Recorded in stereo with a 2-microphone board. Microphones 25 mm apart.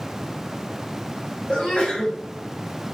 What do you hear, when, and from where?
1.5 s a sneeze: 45° left (ahead or behind), 1.5 m